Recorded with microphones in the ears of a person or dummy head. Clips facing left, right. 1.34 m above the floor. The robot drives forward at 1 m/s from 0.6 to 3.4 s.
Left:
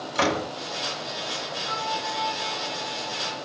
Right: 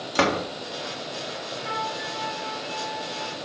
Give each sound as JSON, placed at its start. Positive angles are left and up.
{"t": 0.1, "sound": "a door slam", "side_deg": -50, "distance_m": 3.0}
{"t": 1.6, "sound": "a flute", "side_deg": -80, "distance_m": 3.5}